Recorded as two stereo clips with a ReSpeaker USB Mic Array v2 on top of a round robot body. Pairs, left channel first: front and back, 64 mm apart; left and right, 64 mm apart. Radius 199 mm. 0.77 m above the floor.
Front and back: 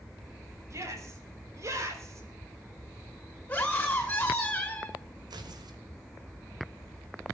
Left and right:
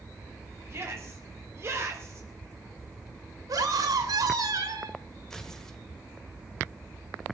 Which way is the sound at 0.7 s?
140° right.